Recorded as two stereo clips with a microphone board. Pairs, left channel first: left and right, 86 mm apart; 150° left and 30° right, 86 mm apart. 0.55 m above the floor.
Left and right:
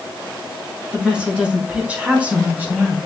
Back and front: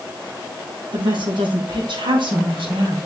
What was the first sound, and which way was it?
A woman speaking, 10° right.